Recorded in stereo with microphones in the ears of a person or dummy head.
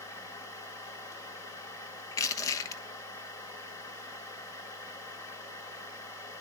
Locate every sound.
0.0 s a machine running: 25° left (ahead or behind), 2.0 m
2.1 s crushing: 15° left (ahead or behind), 1.2 m